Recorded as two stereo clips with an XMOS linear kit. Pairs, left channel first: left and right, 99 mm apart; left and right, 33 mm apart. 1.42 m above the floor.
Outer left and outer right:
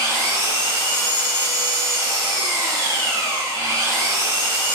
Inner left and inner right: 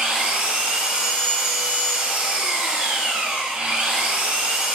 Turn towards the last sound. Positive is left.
turn(degrees=-30)  # may be behind; listen again after turning